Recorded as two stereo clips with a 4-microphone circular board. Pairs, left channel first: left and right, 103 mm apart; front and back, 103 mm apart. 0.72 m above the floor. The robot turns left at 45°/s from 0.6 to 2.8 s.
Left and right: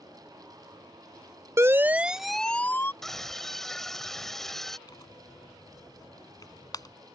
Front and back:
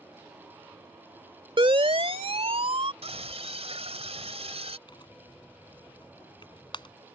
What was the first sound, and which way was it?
A siren, 150° right.